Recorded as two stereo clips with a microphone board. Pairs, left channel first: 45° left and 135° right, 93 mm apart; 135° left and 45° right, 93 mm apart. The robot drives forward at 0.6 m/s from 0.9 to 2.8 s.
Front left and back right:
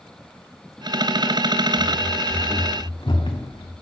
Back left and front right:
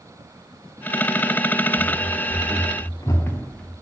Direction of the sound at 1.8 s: 135° left.